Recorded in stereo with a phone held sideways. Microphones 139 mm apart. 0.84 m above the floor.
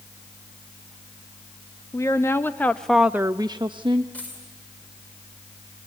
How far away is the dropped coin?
About 7.5 m.